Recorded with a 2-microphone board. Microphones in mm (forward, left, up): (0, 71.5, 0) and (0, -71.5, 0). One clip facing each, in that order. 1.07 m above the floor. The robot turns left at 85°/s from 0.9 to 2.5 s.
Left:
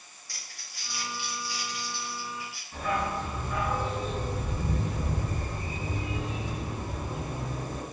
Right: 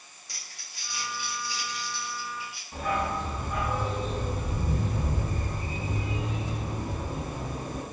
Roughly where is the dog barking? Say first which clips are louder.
Right 1 dB; right.